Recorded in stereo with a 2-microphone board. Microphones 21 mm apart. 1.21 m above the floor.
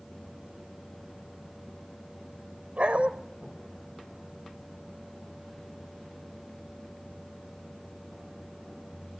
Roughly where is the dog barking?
Right.